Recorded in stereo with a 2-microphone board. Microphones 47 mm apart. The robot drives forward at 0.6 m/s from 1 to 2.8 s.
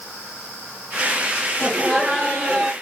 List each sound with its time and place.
1.6 s laughter: 10° right (ahead or behind), 2 m; by 2.7 s 5° right (ahead or behind), 3 m